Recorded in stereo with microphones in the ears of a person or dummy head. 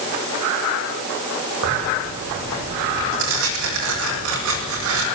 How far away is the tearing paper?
About 8 m.